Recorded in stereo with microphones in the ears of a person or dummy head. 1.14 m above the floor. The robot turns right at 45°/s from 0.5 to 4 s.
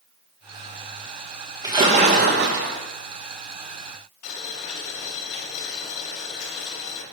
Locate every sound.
1.6 s a splash: 160° right, 1.2 m; by 2.8 s 110° right, 1.2 m
4.2 s boiling: 60° left (ahead or behind), 3.5 m